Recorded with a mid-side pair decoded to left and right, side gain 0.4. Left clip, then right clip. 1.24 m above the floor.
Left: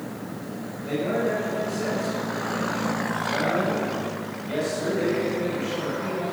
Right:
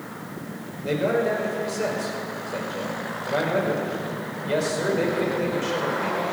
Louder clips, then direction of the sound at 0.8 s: Right 3 dB; 55° right.